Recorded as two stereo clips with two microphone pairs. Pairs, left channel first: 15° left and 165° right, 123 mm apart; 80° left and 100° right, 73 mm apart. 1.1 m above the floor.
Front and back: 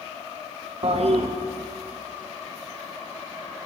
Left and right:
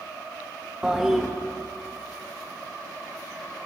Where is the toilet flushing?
Straight behind, 0.9 m.